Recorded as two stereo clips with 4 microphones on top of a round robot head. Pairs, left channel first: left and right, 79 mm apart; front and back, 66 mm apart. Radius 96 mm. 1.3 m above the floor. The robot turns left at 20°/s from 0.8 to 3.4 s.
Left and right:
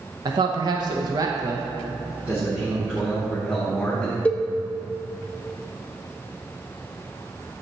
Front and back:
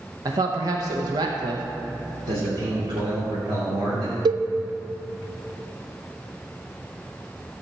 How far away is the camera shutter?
I don't hear a camera shutter.